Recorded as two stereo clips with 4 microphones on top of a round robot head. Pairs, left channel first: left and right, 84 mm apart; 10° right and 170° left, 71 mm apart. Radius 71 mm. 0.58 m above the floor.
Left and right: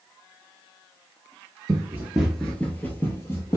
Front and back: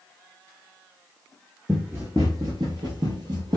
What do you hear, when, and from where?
1.7 s running footsteps: 110° right, 0.6 m; by 3.6 s 145° left, 1.2 m